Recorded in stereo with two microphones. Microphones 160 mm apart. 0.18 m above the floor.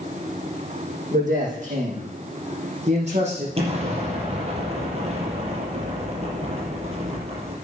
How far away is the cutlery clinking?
No cutlery clinking in this recording.